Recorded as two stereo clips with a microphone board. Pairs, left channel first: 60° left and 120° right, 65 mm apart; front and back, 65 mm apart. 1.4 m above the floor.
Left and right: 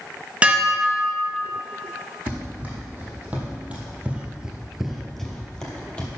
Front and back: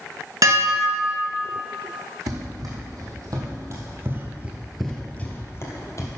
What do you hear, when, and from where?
0.4 s dishes clattering: 170° left, 0.9 m
2.3 s running footsteps: 175° left, 3.5 m; by 6.1 s 10° right, 2 m